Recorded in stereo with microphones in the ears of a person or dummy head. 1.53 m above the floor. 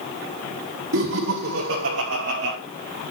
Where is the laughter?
75° right (ahead or behind), 3 m; by 2.6 s 65° right (ahead or behind), 2 m.